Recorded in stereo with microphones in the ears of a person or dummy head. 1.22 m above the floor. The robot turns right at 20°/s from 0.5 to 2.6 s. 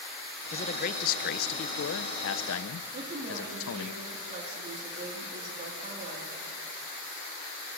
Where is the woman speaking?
45° right (ahead or behind), 2 m.